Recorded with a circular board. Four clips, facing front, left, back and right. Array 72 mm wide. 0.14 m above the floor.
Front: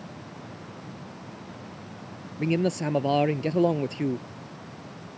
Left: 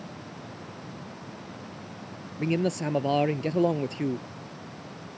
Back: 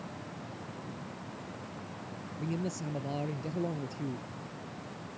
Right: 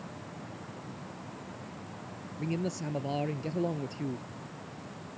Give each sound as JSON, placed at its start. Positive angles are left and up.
{"t": 2.4, "sound": "a man speaking", "azimuth_deg": 35}